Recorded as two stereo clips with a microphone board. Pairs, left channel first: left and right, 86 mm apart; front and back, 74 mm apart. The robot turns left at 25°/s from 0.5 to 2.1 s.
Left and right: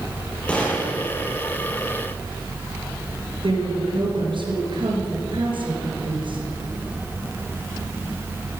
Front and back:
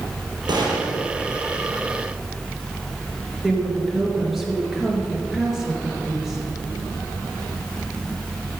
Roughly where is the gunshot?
Behind.